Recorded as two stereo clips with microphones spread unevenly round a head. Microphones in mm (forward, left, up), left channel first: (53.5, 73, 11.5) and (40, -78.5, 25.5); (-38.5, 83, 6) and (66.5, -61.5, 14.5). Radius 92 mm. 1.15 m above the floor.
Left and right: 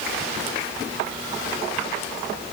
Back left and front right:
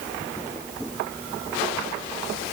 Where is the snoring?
I don't hear snoring.